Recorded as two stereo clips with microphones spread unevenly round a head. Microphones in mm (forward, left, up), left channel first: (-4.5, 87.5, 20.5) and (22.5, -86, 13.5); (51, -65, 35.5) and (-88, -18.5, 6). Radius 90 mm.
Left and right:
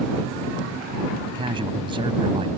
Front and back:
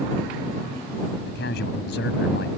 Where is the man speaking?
15° right.